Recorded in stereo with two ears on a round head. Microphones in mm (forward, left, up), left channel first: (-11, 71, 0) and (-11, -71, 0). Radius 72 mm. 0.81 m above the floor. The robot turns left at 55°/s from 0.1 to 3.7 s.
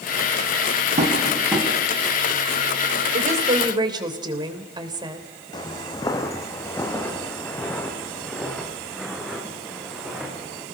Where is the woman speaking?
120° right, 3 m; by 5.3 s 150° right, 3 m.